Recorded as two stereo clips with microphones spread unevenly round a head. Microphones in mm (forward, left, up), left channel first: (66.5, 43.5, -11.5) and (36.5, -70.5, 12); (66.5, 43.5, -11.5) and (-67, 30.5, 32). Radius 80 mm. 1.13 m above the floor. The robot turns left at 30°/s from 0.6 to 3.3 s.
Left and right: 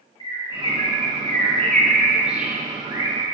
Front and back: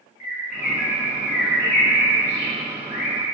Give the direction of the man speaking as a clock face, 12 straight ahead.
I don't hear a man speaking.